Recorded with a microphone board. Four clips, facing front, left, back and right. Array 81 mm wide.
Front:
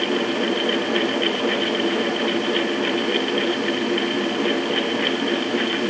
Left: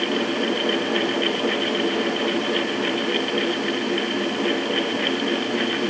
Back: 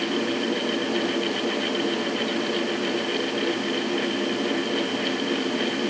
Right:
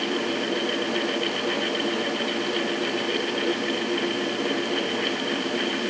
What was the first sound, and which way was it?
Only background noise.